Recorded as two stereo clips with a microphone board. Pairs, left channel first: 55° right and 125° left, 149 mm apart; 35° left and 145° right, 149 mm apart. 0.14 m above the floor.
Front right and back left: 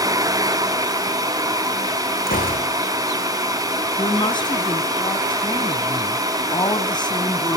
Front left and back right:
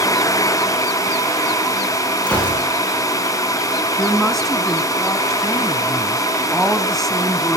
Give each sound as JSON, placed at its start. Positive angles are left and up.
{"t": 2.3, "sound": "a gunshot", "azimuth_deg": -45, "distance_m": 9.0}
{"t": 4.0, "sound": "a woman speaking", "azimuth_deg": -50, "distance_m": 1.6}